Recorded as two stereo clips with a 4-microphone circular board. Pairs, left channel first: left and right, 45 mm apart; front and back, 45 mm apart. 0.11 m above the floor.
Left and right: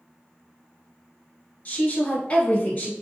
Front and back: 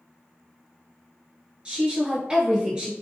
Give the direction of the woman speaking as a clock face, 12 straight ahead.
8 o'clock.